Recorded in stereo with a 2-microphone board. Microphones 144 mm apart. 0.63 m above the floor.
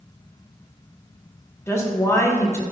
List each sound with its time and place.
1.7 s a woman speaking: 20° left (ahead or behind), 0.8 m